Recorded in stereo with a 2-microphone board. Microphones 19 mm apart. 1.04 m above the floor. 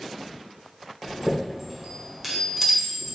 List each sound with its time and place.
1.0 s a chime: 25° right (ahead or behind), 1.5 m